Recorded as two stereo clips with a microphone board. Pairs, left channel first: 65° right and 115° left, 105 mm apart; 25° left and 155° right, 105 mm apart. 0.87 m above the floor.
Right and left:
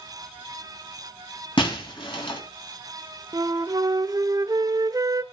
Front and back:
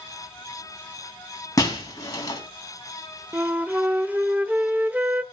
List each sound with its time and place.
1.6 s breaking glass: 35° right, 3.5 m
3.3 s a flute: 135° left, 0.6 m